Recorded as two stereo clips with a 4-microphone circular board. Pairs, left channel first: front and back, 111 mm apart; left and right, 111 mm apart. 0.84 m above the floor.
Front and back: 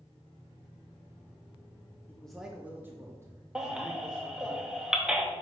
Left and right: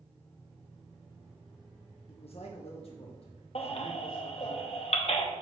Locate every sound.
2.1 s a man speaking: 75° left, 0.7 m; by 4.5 s 130° left, 2.5 m
3.5 s a baby crying: 100° left, 0.8 m